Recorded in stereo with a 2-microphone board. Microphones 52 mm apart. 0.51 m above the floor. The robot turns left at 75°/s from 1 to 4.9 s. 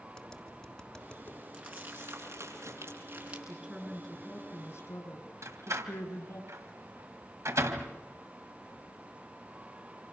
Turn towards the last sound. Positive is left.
turn(degrees=-75)  # may be behind; listen again after turning